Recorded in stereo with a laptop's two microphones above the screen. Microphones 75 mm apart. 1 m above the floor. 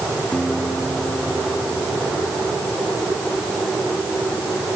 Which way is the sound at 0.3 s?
5° left (ahead or behind).